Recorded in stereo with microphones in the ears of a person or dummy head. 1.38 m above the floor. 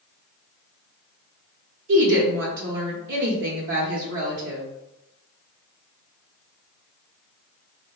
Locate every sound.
1.9 s a woman speaking: 65° right (ahead or behind), 0.8 m